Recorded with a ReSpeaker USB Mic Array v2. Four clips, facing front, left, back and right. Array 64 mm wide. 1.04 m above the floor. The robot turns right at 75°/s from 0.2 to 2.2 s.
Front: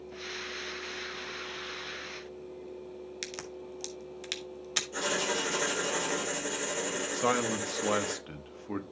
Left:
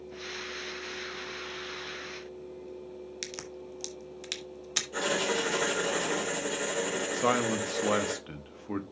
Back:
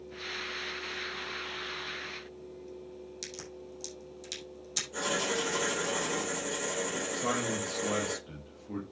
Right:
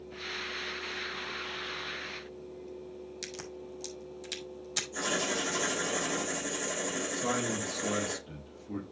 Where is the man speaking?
55° left, 1.2 m.